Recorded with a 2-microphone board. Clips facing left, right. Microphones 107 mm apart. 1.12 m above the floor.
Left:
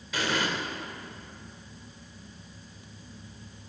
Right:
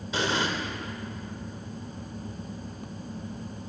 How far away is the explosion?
About 1.0 m.